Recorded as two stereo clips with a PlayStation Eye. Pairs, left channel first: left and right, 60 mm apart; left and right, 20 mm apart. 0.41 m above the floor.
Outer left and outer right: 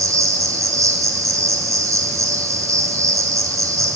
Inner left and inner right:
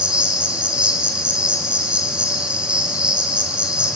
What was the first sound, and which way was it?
An insect, 65° right (ahead or behind).